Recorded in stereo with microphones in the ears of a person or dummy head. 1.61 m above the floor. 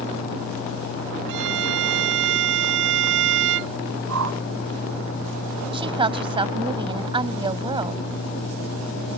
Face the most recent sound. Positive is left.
turn(degrees=-30)  # may be behind; listen again after turning